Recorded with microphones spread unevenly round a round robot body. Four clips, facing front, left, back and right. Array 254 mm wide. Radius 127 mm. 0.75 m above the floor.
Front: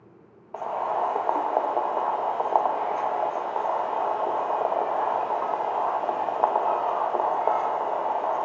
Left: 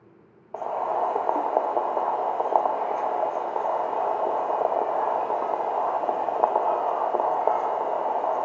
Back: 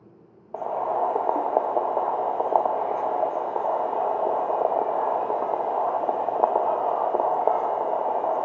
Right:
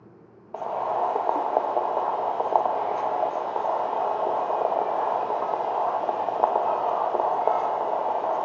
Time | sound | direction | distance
0.5 | boiling | 175° left | 0.5 m